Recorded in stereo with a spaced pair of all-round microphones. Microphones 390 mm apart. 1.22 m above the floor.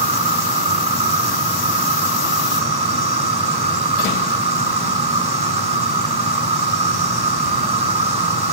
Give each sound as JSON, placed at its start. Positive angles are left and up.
{"t": 0.0, "sound": "an insect", "side_deg": -65, "distance_m": 1.4}